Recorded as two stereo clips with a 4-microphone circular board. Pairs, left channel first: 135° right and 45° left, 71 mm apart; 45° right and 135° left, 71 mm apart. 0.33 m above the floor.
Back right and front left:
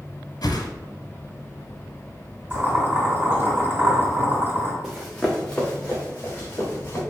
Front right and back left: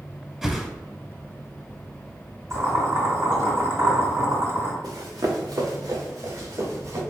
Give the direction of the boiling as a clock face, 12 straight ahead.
8 o'clock.